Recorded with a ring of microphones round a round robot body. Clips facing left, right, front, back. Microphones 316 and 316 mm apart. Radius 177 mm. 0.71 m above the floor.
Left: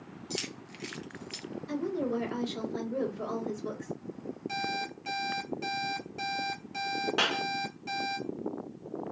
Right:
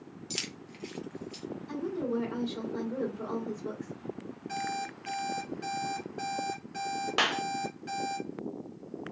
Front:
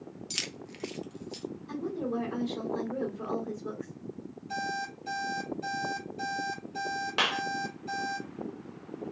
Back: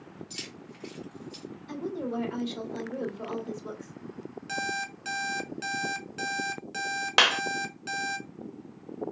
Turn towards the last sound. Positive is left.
turn(degrees=-170)